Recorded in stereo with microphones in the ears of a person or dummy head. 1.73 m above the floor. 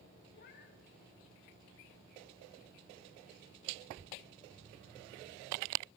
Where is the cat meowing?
50° left (ahead or behind), 2.0 m.